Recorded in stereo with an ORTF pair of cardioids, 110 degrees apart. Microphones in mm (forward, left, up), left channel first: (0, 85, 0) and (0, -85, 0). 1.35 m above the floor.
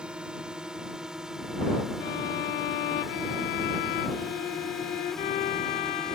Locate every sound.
0.0 s a drone: 5° right; by 6.2 s 5° left
2.0 s a violin: 65° left